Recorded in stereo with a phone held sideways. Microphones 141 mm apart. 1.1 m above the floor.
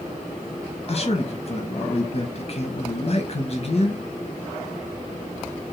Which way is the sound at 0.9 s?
45° left (ahead or behind).